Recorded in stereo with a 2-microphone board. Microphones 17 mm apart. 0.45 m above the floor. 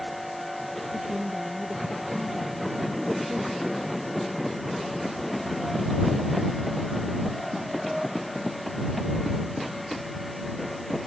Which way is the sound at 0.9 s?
75° right (ahead or behind).